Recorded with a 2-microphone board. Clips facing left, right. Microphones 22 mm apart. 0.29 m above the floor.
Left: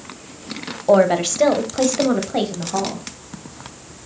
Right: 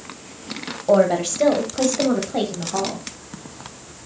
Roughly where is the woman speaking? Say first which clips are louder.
Left 2 dB; left.